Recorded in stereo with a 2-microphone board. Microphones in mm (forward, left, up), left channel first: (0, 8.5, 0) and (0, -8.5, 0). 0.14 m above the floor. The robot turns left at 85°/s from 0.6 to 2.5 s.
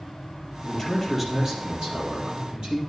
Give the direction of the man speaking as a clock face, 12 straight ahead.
11 o'clock.